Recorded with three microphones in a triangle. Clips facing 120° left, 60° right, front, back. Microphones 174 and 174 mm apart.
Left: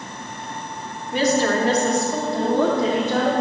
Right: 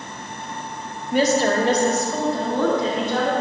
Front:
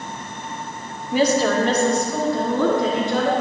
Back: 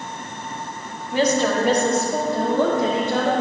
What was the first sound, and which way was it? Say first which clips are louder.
A woman speaking: right 1 dB, front 1 dB; 70° right.